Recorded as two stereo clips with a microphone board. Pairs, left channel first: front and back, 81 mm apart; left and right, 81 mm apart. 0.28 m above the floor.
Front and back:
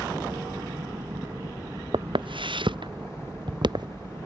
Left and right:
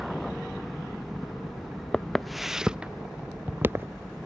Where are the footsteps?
170° left; by 4.2 s 150° right.